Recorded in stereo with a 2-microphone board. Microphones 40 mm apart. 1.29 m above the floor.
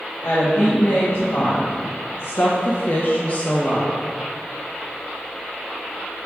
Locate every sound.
0.2 s a woman speaking: 60° left (ahead or behind), 2 m; by 3.9 s 10° left (ahead or behind), 1.0 m